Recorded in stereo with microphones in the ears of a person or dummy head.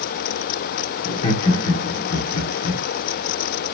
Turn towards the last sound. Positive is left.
turn(degrees=40)  # may be behind; listen again after turning